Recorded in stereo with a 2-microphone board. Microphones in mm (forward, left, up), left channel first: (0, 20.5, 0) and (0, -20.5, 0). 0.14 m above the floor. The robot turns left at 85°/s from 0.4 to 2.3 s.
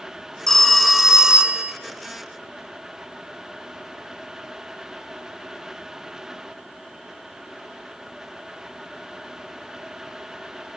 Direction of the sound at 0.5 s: 15° left (ahead or behind).